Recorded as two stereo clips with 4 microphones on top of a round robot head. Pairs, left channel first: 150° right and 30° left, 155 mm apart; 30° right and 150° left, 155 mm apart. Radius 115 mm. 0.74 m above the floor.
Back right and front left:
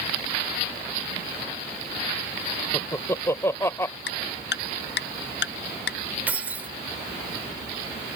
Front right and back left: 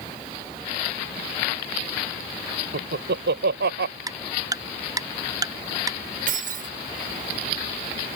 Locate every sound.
2.7 s laughter: 135° left
4.1 s ticking: 140° right
6.3 s keys jangling: 110° left